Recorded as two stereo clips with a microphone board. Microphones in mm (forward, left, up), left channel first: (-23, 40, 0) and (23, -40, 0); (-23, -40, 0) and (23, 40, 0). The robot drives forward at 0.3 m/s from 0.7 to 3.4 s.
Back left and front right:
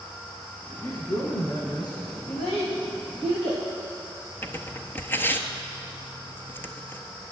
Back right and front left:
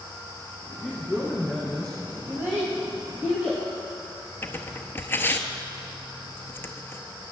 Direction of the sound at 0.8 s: 155° left.